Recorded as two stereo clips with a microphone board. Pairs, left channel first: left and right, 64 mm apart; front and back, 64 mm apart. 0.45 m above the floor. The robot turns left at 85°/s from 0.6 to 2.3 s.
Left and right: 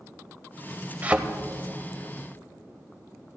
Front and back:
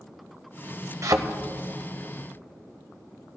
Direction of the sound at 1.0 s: 150° right.